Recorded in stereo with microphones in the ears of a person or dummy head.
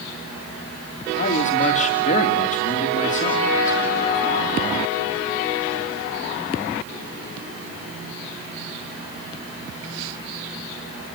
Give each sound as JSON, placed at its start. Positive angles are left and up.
{"t": 1.2, "sound": "a man speaking", "side_deg": 45, "distance_m": 2.5}